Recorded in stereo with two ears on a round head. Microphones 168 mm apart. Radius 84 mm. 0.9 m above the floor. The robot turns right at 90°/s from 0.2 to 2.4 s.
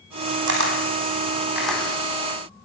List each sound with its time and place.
0.5 s a camera shutter: 70° right (ahead or behind), 5 m; by 1.8 s 15° left (ahead or behind), 5 m